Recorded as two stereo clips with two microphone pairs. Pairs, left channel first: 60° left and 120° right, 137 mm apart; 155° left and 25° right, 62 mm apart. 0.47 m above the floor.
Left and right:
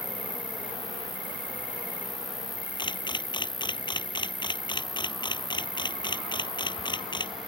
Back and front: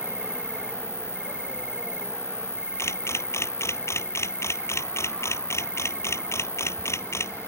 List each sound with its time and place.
0.0 s an insect: 55° left
2.8 s a camera shutter: 115° left